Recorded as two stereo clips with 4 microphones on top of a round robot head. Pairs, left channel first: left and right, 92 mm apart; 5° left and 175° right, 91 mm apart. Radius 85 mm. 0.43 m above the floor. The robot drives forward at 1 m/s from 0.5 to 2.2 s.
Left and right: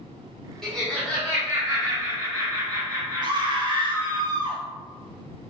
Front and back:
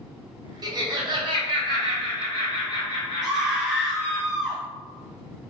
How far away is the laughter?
About 1.4 m.